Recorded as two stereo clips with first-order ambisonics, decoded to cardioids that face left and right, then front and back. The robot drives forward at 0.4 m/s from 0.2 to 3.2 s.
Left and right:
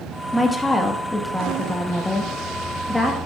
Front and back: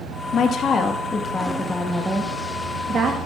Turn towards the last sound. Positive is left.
turn(degrees=170)